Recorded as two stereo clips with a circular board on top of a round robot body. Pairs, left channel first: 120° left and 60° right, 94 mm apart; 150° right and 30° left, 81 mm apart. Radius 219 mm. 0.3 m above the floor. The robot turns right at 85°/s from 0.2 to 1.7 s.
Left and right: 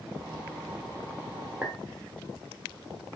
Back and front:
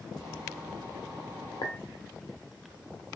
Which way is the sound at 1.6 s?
135° right.